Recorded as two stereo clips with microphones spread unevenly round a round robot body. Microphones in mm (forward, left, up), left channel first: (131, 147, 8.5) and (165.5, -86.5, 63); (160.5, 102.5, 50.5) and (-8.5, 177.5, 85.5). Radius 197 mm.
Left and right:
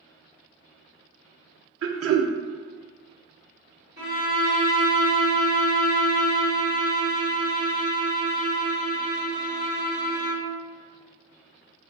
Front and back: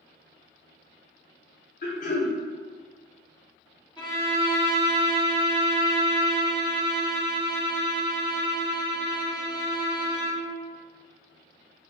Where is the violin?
140° right, 1.5 m.